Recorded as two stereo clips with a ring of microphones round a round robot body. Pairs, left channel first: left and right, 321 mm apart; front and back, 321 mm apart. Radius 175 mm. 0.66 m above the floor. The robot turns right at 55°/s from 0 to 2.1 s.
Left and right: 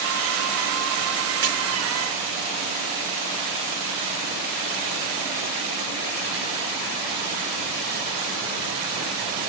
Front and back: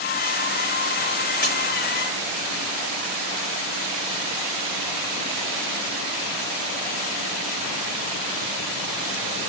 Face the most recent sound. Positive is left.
turn(degrees=-30)